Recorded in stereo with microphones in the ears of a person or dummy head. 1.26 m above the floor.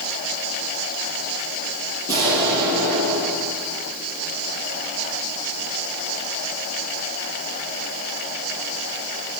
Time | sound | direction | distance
2.1 | an explosion | 15° right (ahead or behind) | 6.5 m